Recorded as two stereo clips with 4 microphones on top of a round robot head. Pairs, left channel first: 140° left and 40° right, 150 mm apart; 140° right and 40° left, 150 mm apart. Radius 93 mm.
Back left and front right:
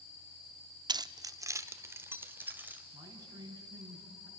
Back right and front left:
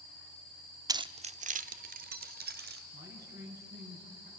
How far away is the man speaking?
About 5 m.